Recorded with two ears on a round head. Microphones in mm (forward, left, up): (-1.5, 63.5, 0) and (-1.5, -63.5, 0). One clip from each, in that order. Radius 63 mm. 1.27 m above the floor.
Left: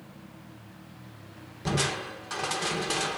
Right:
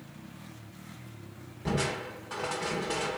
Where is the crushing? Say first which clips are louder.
Left 3 dB; 70° left (ahead or behind), 1.7 m.